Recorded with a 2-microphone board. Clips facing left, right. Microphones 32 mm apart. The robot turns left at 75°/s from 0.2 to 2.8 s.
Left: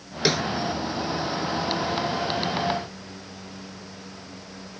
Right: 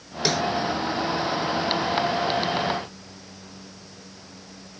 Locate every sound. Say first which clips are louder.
0.2 s a snare drum: left 1 dB; 15° left (ahead or behind); by 0.4 s centre (ahead or behind)